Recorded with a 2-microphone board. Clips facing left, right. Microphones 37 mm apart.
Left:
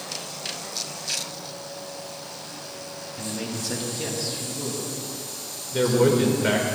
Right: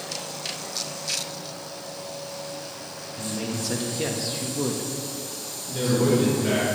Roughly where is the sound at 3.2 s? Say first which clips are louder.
Right 2 dB; centre.